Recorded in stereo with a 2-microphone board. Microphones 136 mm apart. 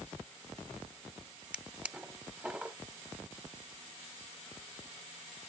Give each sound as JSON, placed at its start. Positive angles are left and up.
{"t": 1.5, "sound": "a drawer", "side_deg": -10, "distance_m": 0.6}